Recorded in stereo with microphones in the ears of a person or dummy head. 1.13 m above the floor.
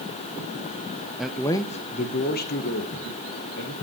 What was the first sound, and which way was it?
A man speaking, centre (ahead or behind).